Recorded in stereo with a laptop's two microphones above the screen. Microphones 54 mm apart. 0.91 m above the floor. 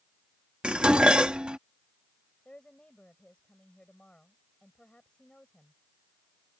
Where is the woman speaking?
20° left (ahead or behind).